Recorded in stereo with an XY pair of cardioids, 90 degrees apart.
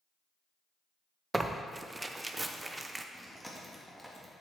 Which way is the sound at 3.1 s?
Straight ahead.